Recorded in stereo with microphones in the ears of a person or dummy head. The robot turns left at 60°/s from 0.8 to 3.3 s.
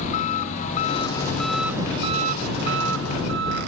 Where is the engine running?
40° left; by 3.7 s 110° right.